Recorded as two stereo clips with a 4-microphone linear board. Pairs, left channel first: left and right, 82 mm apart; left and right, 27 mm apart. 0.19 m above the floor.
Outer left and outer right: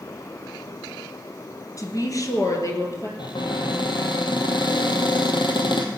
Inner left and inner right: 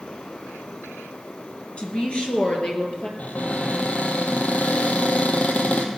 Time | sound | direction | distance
1.8 | a woman speaking | 45° left (ahead or behind) | 2.5 m
3.2 | a cupboard door | 70° left (ahead or behind) | 2.5 m